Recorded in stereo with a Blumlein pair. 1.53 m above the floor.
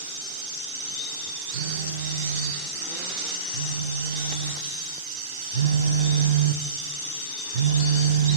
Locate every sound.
1.5 s a phone buzzing: 65° right, 0.7 m